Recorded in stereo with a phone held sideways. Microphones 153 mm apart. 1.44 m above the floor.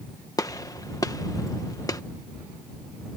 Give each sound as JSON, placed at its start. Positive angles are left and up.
{"t": 0.4, "sound": "a gunshot", "side_deg": 25}